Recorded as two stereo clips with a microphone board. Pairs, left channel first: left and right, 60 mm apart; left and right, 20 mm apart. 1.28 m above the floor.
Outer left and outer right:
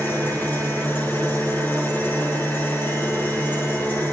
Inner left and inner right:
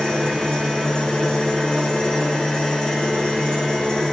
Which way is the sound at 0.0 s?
35° left (ahead or behind).